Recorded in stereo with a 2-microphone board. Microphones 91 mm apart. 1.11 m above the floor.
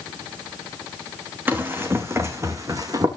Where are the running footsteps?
25° right (ahead or behind), 3 m; by 3.1 s 45° right (ahead or behind), 3 m.